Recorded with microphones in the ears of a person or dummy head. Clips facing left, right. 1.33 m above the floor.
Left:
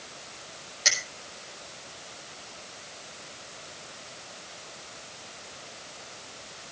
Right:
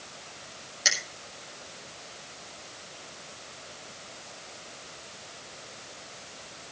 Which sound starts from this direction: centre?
A finger snap, at 0.8 s.